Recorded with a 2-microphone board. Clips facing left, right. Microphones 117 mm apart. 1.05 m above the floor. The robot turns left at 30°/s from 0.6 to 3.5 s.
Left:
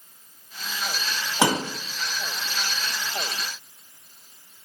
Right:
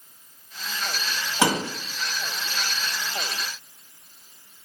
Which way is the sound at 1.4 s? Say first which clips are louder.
Even; 20° left (ahead or behind).